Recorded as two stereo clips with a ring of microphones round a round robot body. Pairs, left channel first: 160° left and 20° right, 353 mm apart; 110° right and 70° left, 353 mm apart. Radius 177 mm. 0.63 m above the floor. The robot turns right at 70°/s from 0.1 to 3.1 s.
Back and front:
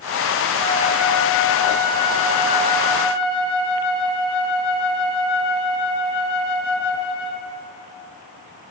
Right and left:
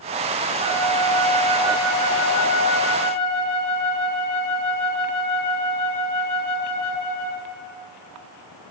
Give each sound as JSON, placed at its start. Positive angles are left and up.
{"t": 0.6, "sound": "a flute", "azimuth_deg": 35, "distance_m": 1.9}